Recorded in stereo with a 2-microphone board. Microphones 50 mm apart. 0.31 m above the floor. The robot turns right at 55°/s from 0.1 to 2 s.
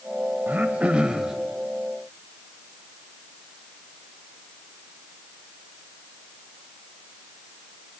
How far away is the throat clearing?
About 1.2 m.